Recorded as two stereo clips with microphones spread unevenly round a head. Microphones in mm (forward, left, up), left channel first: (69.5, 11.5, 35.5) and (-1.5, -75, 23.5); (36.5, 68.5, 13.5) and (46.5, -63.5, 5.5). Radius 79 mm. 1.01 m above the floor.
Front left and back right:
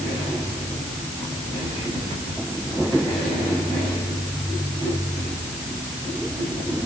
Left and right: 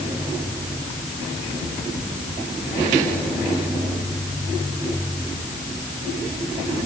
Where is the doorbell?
I don't hear a doorbell.